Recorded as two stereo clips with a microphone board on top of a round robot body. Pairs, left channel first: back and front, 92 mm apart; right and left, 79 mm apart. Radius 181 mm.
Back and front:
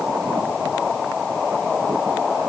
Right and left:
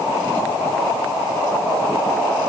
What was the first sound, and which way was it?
Only background noise.